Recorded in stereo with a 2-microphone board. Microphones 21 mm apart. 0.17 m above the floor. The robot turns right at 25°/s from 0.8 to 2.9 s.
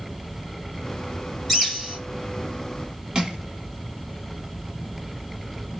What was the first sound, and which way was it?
A bird, centre (ahead or behind).